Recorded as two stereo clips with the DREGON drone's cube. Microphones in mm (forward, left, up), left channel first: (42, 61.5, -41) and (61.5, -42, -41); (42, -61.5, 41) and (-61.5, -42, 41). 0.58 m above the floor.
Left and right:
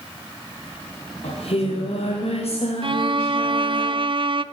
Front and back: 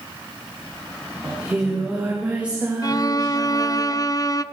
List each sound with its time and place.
1.2 s singing: 90° left, 9.5 m
2.8 s a violin: 60° right, 0.8 m